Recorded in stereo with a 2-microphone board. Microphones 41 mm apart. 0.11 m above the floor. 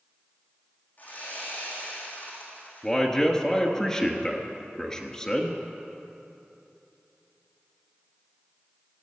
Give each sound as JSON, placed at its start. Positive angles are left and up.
{"t": 1.0, "sound": "sawing", "side_deg": 45, "distance_m": 3.0}
{"t": 2.8, "sound": "a man speaking", "side_deg": 15, "distance_m": 1.4}